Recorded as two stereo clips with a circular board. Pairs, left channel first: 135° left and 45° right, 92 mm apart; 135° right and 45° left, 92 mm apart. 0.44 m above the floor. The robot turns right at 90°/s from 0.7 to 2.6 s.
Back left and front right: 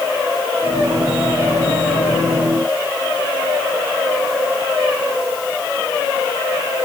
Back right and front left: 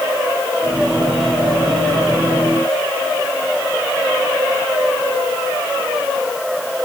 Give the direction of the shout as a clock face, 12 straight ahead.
No shout in this recording.